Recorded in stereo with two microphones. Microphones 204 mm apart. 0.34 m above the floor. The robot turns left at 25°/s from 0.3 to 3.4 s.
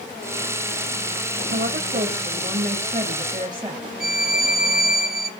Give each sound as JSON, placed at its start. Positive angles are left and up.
{"t": 1.5, "sound": "a woman speaking", "azimuth_deg": -105, "distance_m": 1.9}
{"t": 4.0, "sound": "a violin", "side_deg": -50, "distance_m": 0.9}